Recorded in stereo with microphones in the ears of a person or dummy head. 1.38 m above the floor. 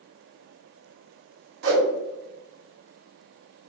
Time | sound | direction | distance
1.6 | a whoosh | 65° right (ahead or behind) | 0.7 m